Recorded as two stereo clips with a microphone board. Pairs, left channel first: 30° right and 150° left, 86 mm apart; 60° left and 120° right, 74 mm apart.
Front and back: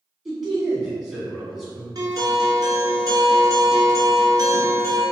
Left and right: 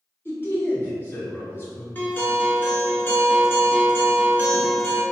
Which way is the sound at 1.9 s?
120° left.